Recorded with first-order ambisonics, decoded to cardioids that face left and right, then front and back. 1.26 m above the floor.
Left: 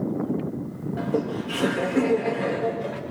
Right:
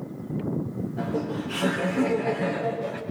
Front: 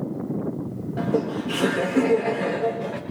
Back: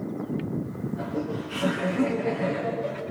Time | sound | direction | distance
1.0 | laughter | 30° left | 4 m